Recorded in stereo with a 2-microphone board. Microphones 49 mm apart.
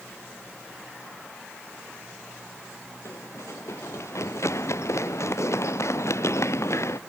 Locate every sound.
3.0 s running footsteps: 75° left (ahead or behind); by 7.0 s 70° left (ahead or behind)